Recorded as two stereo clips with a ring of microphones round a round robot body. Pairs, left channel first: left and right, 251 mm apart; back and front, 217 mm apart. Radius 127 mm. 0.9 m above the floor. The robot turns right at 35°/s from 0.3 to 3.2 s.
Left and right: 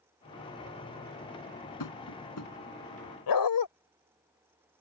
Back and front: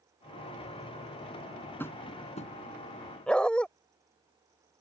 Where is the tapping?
100° left; by 2.5 s 125° left.